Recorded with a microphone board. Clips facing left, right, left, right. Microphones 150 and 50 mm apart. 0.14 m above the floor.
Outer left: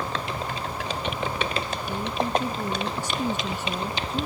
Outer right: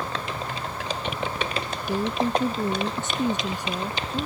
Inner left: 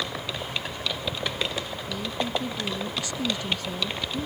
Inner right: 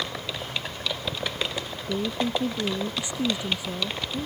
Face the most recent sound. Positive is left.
turn(degrees=-5)  # may be behind; listen again after turning